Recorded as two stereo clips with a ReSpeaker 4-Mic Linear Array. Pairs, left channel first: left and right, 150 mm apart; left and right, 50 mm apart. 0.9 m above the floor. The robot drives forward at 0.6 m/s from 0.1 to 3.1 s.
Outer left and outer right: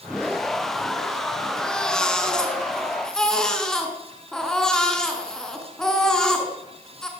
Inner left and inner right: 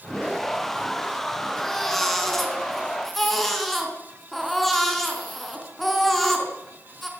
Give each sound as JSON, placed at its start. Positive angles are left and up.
{"t": 1.6, "sound": "a baby crying", "side_deg": 5, "distance_m": 4.5}